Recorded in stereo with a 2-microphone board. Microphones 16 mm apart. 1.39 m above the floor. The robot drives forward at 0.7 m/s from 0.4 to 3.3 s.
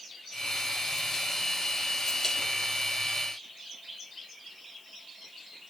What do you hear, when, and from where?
Only background noise.